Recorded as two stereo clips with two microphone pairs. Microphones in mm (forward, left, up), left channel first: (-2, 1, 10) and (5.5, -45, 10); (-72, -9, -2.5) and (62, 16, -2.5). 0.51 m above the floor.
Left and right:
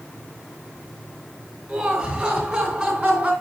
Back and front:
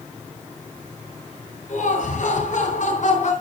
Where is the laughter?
145° right, 9.5 m; by 3.3 s 140° right, 8 m.